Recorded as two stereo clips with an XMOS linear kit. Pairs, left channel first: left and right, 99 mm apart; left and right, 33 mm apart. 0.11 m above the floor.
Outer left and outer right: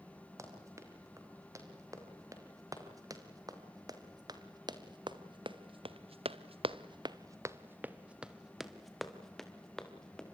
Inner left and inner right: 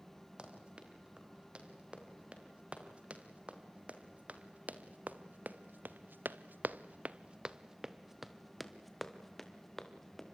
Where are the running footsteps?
30° right (ahead or behind), 6 m; by 10.3 s 10° left (ahead or behind), 3.5 m.